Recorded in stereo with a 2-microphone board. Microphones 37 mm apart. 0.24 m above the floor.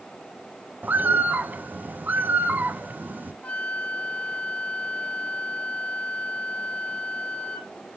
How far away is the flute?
About 1.8 m.